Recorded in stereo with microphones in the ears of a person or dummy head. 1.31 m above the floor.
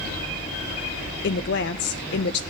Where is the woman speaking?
55° left (ahead or behind), 0.6 m.